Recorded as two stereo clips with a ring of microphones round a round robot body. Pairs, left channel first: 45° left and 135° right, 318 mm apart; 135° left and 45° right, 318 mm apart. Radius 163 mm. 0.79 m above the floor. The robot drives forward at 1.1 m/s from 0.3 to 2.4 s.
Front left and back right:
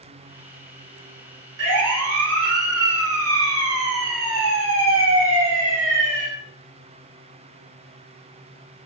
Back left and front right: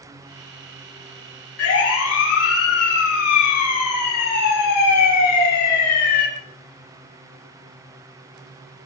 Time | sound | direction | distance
1.6 | a siren | straight behind | 10 m